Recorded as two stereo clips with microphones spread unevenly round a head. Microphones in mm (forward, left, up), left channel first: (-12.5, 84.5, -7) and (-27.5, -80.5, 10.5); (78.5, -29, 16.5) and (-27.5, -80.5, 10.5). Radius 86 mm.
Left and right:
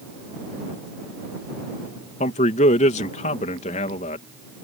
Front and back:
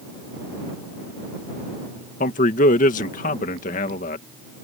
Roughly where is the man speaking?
Ahead left.